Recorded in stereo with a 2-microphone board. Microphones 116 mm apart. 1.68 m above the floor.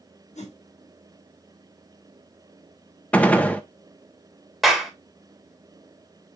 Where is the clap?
Centre (ahead or behind), 3 m.